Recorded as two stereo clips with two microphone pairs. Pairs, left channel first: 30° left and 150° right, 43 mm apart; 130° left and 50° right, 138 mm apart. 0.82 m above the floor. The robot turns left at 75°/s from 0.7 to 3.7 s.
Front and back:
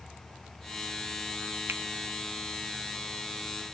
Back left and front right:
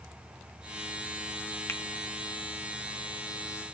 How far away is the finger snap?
About 1.1 m.